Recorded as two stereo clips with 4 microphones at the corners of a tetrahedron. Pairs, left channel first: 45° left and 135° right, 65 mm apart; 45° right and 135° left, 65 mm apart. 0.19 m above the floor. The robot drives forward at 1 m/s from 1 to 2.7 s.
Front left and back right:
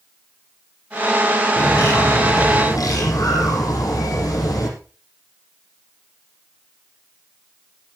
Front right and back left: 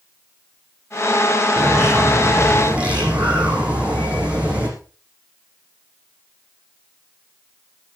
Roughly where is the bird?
Ahead left.